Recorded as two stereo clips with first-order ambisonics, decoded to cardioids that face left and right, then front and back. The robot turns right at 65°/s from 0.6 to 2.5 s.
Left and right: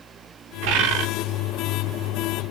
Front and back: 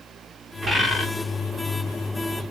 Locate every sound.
0.6 s a bird: 105° right, 0.6 m; by 1.1 s 75° right, 0.6 m